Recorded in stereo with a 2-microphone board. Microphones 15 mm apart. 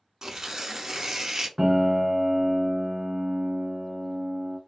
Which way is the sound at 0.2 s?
35° right (ahead or behind).